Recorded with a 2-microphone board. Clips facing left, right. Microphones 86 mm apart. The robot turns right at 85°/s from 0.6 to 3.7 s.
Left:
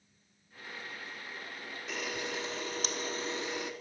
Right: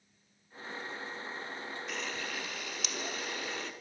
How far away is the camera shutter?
About 0.6 m.